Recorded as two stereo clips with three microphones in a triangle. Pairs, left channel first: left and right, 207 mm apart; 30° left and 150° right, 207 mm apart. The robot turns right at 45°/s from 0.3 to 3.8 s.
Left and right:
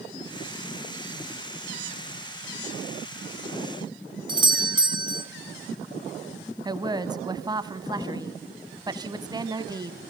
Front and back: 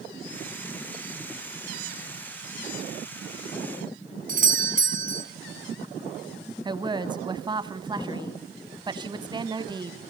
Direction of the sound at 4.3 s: 145° right.